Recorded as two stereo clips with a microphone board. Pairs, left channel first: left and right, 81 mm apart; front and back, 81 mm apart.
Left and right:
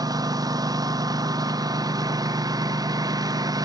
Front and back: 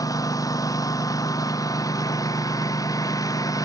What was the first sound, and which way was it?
A lawn mower, 45° right.